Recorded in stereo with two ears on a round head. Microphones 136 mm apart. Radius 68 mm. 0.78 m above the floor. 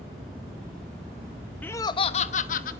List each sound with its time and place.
1.6 s laughter: 10° left (ahead or behind), 0.6 m; by 2.7 s 60° left (ahead or behind), 1.1 m